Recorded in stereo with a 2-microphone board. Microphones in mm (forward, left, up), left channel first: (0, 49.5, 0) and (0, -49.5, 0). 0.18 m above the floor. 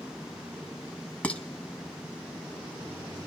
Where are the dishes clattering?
15° left (ahead or behind), 0.7 m.